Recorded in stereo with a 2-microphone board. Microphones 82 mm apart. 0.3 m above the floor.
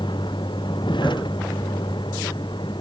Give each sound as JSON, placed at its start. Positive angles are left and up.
{"t": 0.0, "sound": "a vehicle", "side_deg": 70}